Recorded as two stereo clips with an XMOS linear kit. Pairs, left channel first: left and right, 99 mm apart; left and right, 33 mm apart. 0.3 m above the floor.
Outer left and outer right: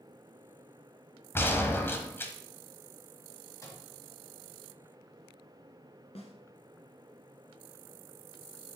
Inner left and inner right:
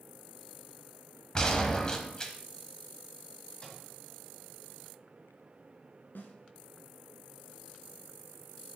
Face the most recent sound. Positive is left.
turn(degrees=80)